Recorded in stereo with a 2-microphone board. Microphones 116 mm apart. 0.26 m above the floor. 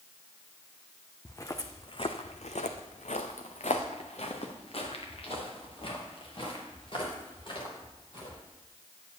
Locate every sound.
1.2 s footsteps: 20° left (ahead or behind), 0.9 m; by 8.4 s 40° left (ahead or behind), 4 m